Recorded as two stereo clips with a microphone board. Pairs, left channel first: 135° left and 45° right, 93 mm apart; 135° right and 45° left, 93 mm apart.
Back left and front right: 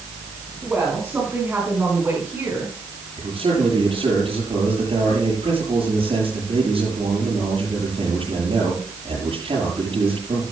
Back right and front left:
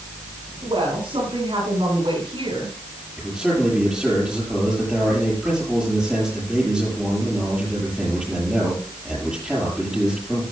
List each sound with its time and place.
0.6 s a woman speaking: 30° left, 4.5 m; by 2.8 s 20° left, 5.5 m
3.2 s a man speaking: 40° right, 8 m